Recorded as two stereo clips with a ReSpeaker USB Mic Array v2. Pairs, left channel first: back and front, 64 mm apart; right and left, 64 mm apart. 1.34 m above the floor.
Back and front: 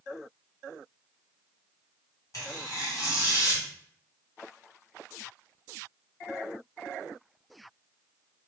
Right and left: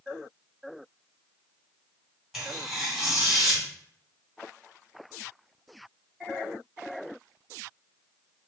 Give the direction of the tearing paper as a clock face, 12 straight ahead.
6 o'clock.